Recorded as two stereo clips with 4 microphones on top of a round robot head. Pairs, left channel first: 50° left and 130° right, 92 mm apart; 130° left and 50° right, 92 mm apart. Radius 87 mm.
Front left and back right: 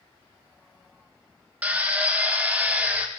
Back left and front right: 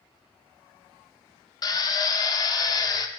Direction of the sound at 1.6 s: 160° left.